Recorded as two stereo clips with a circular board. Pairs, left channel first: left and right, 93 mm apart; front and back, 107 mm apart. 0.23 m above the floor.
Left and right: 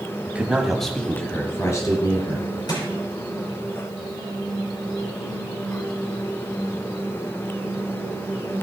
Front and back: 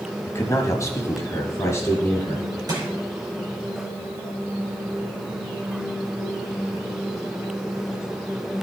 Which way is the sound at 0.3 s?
35° right.